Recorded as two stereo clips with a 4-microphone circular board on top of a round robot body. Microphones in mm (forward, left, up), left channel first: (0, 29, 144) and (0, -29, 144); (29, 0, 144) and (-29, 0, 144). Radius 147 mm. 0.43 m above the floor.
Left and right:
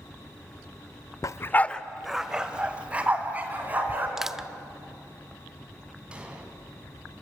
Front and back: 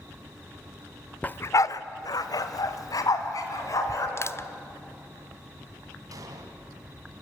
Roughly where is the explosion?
Behind.